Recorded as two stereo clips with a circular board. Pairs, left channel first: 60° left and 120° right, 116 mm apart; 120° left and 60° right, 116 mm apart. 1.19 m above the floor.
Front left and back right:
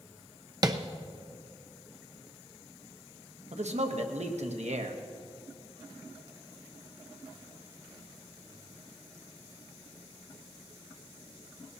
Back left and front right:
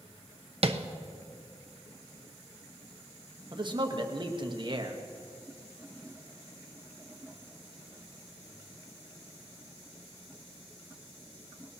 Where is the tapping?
70° right, 0.7 m.